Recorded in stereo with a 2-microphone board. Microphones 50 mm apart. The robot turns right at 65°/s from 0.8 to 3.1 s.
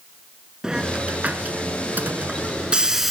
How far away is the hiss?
About 0.5 m.